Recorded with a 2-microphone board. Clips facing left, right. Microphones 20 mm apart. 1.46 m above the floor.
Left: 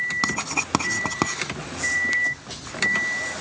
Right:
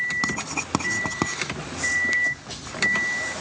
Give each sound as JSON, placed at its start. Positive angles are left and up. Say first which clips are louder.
{"t": 0.2, "sound": "writing", "louder": "left 2 dB", "side_deg": 10}